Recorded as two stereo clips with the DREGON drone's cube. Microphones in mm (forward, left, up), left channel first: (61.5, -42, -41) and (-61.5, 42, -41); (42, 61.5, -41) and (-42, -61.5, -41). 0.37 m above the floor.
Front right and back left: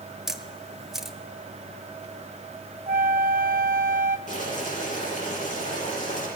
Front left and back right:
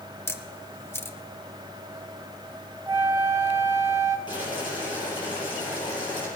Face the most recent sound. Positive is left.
turn(degrees=-5)